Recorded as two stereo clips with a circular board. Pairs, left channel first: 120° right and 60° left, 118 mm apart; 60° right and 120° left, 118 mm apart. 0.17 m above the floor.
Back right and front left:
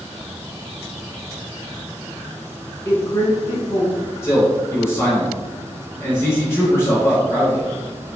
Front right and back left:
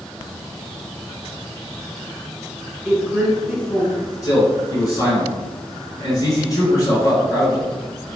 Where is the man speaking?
75° right, 1.8 m.